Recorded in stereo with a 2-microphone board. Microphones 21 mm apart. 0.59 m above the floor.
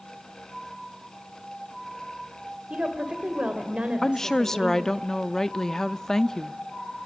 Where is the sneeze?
I don't hear a sneeze.